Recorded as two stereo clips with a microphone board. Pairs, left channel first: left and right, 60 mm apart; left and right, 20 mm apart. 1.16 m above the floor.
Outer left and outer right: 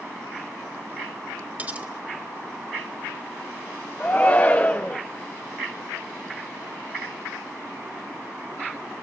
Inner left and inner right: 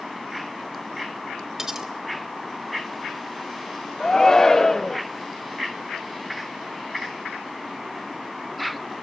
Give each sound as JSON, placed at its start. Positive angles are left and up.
{"t": 1.6, "sound": "cutlery clinking", "side_deg": -25, "distance_m": 2.0}
{"t": 4.0, "sound": "a shout", "side_deg": 30, "distance_m": 0.7}